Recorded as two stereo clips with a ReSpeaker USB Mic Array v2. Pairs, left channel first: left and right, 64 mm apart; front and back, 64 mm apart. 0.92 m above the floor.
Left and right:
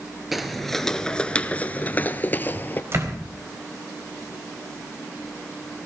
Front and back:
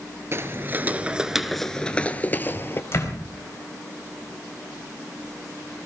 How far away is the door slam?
About 4.5 m.